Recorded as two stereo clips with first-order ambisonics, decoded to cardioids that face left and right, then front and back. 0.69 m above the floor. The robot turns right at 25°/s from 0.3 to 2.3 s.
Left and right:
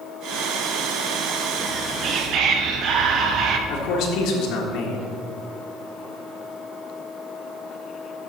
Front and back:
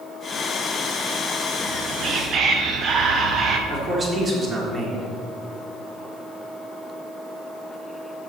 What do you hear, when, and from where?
1.6 s whispering: 145° right, 0.8 m; by 3.6 s 130° right, 0.8 m
3.7 s a man speaking: 110° left, 1.8 m